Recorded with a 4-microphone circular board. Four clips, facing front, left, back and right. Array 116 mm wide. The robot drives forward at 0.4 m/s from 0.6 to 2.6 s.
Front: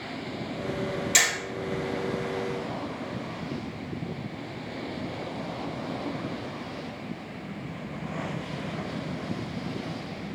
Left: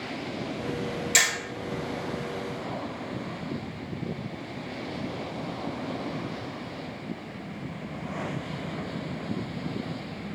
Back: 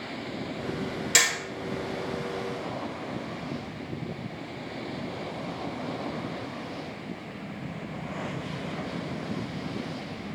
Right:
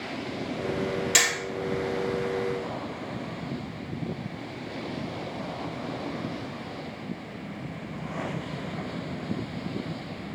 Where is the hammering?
145° right, 1.6 m; by 1.3 s 150° right, 1.6 m.